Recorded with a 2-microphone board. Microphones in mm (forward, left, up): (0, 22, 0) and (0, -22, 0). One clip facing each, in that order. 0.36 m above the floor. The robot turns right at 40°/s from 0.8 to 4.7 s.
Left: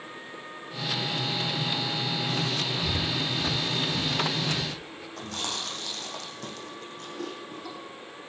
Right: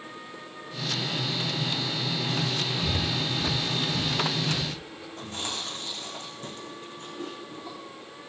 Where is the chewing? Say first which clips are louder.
Left 1 dB; 85° left, 4.5 m.